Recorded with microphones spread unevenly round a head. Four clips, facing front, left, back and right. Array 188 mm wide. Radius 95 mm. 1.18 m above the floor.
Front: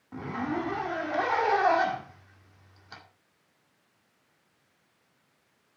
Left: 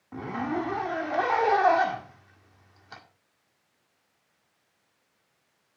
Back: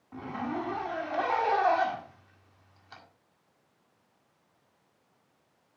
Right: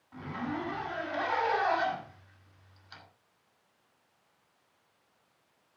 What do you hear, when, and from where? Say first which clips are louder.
0.1 s a zipper: left 6 dB, front 2 dB; 65° left, 2 m